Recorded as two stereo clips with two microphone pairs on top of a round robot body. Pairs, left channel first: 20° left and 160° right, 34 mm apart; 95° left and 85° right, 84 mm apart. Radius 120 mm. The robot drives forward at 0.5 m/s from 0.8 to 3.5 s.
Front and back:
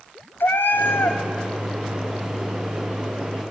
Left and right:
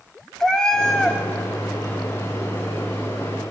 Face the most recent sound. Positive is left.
turn(degrees=165)